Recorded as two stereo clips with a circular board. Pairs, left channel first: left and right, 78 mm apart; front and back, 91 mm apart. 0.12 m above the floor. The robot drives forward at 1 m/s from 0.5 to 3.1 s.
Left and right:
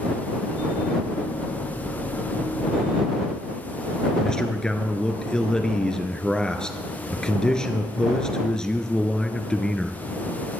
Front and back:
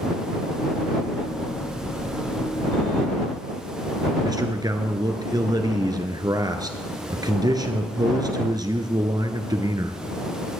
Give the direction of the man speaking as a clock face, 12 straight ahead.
6 o'clock.